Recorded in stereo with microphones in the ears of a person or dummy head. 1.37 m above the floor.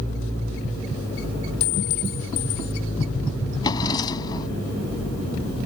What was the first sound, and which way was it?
A clink, 35° left (ahead or behind).